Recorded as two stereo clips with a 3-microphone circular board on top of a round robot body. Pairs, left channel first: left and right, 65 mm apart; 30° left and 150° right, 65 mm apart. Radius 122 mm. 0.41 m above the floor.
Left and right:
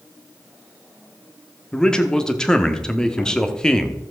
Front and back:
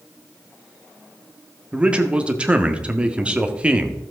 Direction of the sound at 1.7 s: 155° left.